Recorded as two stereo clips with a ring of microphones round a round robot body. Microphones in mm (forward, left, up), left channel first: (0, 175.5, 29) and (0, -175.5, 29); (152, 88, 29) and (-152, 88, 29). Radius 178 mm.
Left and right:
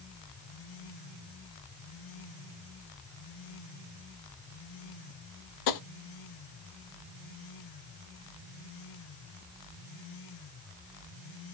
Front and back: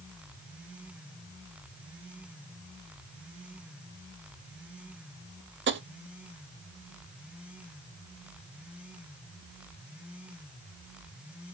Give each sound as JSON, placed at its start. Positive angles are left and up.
{"t": 5.7, "sound": "tapping", "azimuth_deg": 125, "distance_m": 0.6}